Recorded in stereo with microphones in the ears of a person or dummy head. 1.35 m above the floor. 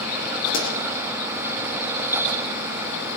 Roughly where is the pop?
Left.